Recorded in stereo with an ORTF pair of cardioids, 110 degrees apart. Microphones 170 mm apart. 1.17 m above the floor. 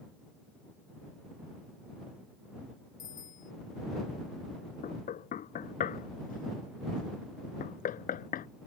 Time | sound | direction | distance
3.0 | a bicycle bell | 50° left | ?
4.8 | knocking | 50° left | ?